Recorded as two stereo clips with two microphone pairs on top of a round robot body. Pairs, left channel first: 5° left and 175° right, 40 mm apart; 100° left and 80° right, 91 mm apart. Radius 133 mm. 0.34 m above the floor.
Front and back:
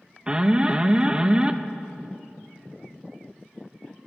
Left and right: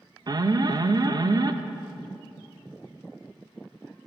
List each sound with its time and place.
0.3 s an alarm: 105° right, 0.5 m